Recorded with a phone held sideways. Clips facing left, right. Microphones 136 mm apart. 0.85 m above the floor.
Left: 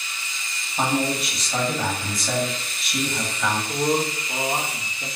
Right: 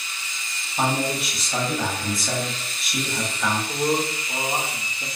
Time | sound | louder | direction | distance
0.8 | a man speaking | left 1 dB | 5° right (ahead or behind) | 1.0 m
3.7 | a man speaking | left 2 dB | 5° right (ahead or behind) | 1.0 m